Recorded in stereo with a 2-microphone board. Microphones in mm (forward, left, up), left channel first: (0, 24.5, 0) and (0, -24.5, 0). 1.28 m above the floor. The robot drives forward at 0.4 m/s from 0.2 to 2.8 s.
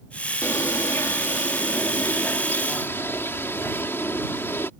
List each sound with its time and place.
0.4 s a bird: 70° left (ahead or behind); by 4.7 s 50° left (ahead or behind)